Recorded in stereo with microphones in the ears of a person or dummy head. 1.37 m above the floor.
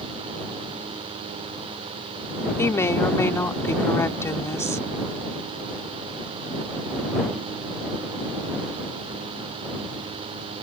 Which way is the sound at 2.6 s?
15° left (ahead or behind).